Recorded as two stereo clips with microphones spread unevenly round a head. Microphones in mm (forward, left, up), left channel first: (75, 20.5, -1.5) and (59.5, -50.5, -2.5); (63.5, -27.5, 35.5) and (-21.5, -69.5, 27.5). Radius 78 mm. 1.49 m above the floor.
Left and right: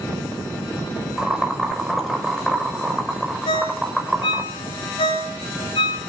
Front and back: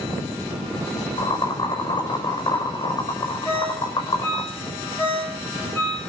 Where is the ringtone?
105° left, 8 m.